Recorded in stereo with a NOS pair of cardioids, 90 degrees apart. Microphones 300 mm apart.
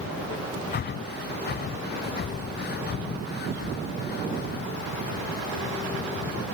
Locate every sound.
0.7 s breathing: 35° left, 0.5 m